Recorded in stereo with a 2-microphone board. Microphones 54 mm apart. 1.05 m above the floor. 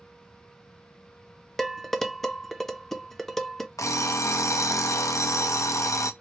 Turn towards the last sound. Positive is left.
turn(degrees=75)  # may be behind; listen again after turning